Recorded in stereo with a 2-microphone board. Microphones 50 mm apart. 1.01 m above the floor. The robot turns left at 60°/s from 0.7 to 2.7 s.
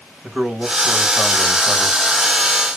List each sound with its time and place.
0.2 s a man speaking: 30° right, 1.4 m; by 2.0 s 105° right, 1.4 m